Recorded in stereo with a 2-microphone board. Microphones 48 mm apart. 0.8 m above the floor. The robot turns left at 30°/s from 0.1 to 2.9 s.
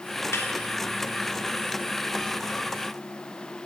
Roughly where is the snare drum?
Left.